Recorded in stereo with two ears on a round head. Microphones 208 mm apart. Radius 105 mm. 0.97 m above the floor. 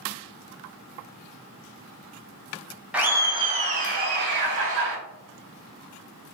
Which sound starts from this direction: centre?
Laughter, at 2.9 s.